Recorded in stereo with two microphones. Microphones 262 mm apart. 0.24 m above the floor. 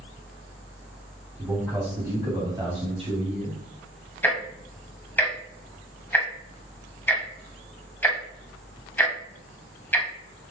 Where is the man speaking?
5° right (ahead or behind), 2.5 m; by 3.6 s 30° right (ahead or behind), 1.8 m.